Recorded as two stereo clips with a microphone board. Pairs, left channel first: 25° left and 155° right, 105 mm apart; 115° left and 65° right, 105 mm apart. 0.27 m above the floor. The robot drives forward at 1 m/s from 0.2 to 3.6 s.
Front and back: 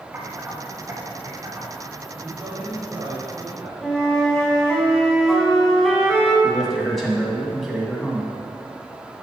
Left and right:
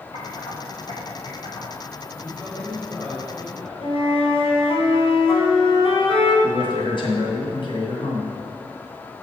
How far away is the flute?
About 1.7 m.